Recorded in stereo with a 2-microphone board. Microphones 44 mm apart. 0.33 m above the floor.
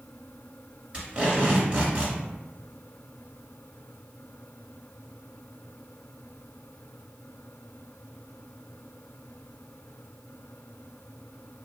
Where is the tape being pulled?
25° right (ahead or behind), 1.5 m.